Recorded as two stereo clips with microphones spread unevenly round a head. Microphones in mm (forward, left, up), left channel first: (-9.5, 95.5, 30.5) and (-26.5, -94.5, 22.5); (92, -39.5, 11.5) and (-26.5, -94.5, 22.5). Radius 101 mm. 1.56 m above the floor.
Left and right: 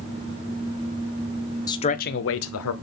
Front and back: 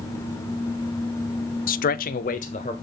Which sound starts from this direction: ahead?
A man speaking, at 1.7 s.